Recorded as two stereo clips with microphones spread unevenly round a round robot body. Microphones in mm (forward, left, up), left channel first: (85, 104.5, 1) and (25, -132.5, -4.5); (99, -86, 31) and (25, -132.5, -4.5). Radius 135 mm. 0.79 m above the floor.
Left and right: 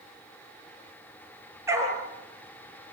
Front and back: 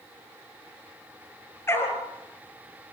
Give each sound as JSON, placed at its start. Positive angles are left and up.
{"t": 1.7, "sound": "a dog barking", "azimuth_deg": -25, "distance_m": 4.5}